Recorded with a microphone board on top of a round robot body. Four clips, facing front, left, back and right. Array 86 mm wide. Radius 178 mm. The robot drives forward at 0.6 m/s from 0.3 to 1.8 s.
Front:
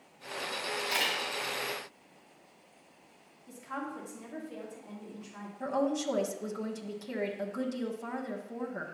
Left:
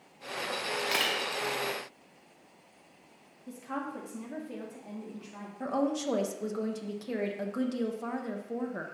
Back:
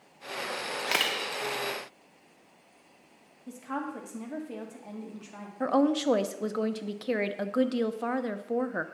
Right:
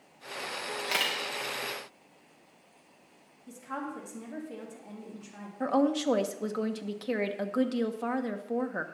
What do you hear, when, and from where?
0.8 s a camera shutter: straight behind, 0.8 m
3.5 s a woman speaking: 160° left, 2.5 m
5.6 s a woman speaking: 150° right, 1.0 m